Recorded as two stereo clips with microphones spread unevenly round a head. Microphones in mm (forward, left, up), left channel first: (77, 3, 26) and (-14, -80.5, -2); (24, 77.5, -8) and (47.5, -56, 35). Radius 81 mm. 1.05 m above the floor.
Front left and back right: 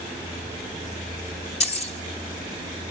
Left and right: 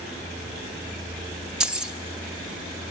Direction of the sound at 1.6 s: 5° left.